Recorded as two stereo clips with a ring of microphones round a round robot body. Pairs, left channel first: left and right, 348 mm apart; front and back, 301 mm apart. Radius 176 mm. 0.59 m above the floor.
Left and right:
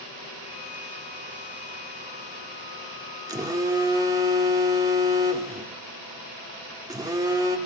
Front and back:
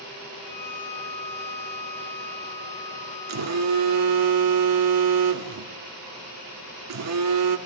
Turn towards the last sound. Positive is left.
turn(degrees=-170)